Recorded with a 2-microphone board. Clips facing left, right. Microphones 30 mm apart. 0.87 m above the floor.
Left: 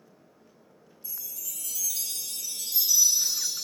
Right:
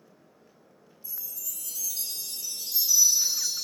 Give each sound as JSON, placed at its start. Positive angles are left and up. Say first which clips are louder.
{"t": 1.0, "sound": "a chime", "louder": "left 1 dB", "side_deg": 65, "distance_m": 1.1}